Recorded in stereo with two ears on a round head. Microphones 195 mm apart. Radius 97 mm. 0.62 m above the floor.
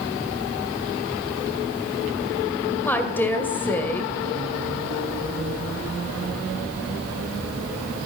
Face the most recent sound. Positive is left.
turn(degrees=10)  # may be behind; listen again after turning